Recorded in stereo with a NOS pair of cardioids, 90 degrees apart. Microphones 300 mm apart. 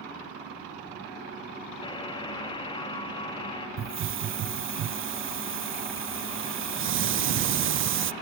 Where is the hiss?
45° right, 0.5 m.